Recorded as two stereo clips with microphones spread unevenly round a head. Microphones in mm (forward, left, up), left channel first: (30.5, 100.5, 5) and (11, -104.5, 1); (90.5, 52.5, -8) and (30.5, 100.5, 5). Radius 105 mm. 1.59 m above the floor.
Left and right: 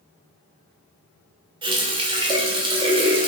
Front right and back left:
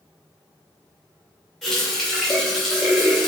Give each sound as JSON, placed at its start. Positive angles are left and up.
{"t": 1.6, "sound": "a running tap", "azimuth_deg": -140, "distance_m": 0.6}